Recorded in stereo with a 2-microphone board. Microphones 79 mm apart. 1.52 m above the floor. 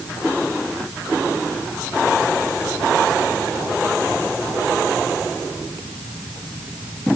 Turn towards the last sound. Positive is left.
No sound to turn to.